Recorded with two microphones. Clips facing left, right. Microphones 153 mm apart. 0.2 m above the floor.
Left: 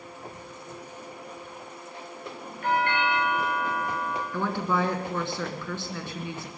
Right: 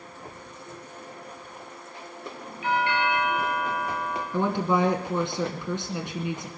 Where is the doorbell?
50° left (ahead or behind), 5 m.